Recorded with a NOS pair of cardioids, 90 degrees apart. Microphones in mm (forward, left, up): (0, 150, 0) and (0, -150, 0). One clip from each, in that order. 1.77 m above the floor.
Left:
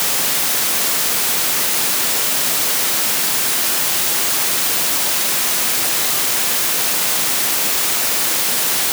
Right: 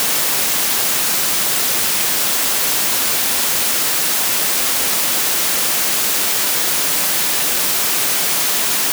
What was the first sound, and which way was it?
Only background noise.